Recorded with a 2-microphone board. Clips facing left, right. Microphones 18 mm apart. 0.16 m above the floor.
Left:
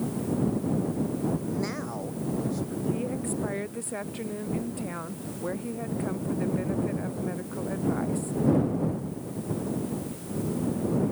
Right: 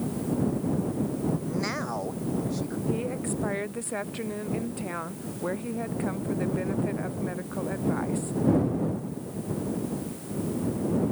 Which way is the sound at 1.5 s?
25° right (ahead or behind).